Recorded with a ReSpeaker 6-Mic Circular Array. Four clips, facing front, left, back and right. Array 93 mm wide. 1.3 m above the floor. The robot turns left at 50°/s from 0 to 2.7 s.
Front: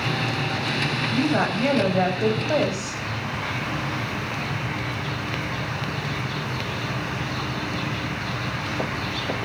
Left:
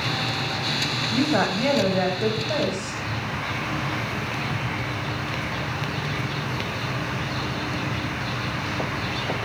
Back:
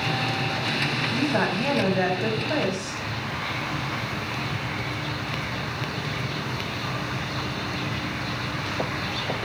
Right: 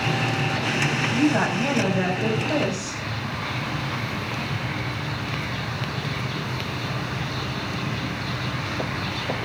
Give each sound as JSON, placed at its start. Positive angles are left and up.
{"t": 1.1, "sound": "a woman speaking", "azimuth_deg": 70, "distance_m": 9.0}